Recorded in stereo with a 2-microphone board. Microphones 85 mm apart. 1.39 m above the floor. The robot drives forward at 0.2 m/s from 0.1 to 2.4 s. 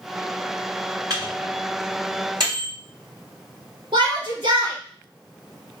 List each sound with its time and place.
1.1 s a microwave: 50° right (ahead or behind), 2 m; by 2.7 s 55° right (ahead or behind), 2 m
3.9 s a shout: 75° right (ahead or behind), 1.9 m